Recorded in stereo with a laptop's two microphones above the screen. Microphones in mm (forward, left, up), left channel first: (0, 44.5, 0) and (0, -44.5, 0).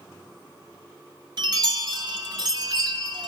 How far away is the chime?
About 1.3 m.